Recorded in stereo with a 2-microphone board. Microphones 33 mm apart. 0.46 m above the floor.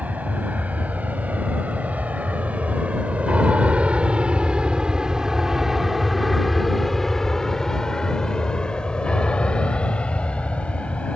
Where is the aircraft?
50° right (ahead or behind); by 11.2 s 35° left (ahead or behind).